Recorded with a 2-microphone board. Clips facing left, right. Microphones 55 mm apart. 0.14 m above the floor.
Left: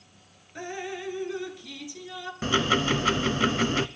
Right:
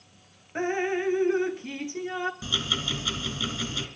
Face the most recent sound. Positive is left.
turn(degrees=50)  # may be behind; listen again after turning